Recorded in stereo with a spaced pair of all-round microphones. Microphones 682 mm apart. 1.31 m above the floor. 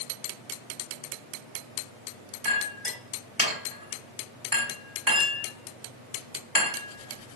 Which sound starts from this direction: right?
A clink, at 2.5 s.